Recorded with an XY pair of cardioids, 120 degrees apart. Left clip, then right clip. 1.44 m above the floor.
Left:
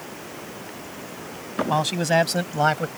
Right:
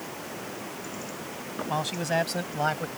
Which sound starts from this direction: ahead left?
A man speaking, at 1.7 s.